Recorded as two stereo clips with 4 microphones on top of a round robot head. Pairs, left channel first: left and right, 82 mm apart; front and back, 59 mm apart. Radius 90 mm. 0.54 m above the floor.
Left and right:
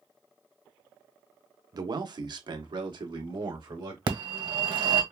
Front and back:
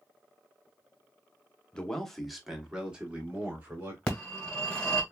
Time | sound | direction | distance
1.7 | a man speaking | 70° right | 1.0 m
4.1 | a phone ringing | 70° right | 1.5 m